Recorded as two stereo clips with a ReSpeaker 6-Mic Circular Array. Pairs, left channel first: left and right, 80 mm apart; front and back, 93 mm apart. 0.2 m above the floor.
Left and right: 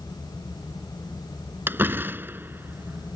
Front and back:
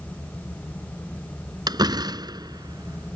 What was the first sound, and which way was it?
A door slam, 150° right.